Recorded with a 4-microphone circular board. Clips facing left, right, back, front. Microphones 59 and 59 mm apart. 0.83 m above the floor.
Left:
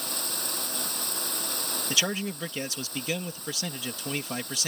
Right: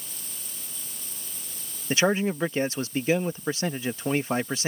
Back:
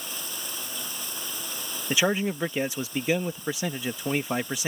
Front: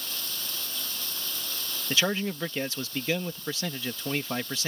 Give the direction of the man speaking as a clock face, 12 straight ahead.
4 o'clock.